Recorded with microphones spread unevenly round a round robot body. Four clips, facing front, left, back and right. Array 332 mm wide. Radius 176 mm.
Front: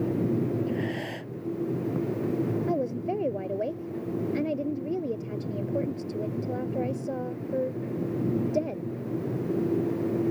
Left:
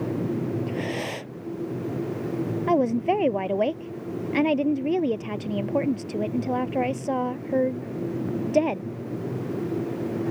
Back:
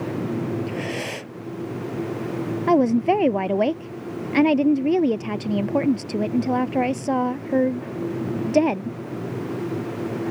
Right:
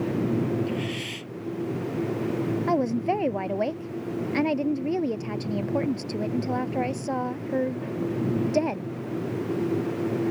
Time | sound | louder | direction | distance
0.7 | breathing | left 1 dB, back 2 dB | 140° left | ?
2.7 | a woman speaking | left 4 dB, back 11 dB | straight behind | ?